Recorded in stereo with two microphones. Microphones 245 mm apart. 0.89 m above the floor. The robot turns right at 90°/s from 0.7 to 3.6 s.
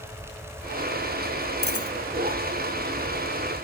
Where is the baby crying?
No baby crying in this recording.